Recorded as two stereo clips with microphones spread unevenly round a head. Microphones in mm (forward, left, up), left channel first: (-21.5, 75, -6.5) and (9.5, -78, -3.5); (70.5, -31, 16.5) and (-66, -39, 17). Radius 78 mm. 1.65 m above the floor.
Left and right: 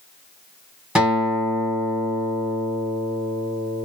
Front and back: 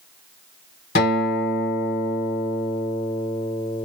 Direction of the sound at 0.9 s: 5° left.